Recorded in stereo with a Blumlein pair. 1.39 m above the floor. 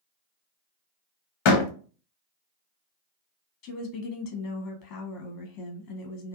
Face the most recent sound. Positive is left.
turn(degrees=50)